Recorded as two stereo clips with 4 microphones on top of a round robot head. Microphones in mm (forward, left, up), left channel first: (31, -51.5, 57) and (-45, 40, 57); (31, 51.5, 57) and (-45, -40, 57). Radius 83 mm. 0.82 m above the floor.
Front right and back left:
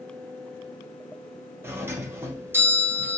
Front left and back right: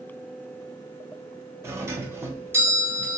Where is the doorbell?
Straight behind, 0.8 m.